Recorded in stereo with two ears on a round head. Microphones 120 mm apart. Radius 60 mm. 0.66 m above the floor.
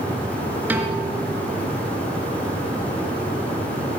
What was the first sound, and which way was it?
A piano, 15° right (ahead or behind).